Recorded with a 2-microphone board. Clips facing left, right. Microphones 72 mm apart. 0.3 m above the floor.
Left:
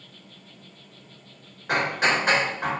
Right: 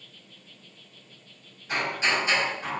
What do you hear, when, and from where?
0.0 s an insect: 65° left (ahead or behind), 3.5 m
1.7 s hammering: 65° left (ahead or behind), 3.5 m